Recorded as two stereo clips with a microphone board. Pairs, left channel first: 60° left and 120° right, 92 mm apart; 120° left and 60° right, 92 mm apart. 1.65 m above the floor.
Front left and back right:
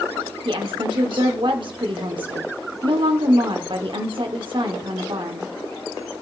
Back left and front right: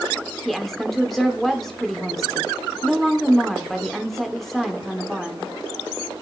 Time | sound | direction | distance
0.5 | a woman speaking | 155° right | 1.0 m